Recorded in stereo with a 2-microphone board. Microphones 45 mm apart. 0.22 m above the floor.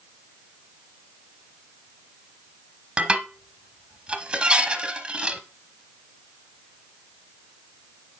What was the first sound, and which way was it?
Dishes clattering, 20° right (ahead or behind).